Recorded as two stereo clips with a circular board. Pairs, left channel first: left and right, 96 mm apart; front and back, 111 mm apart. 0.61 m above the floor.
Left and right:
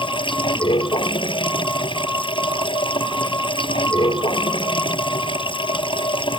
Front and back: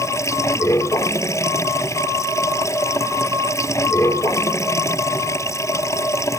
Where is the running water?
65° left.